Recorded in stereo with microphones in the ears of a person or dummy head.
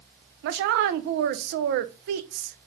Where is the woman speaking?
55° right (ahead or behind), 0.5 m.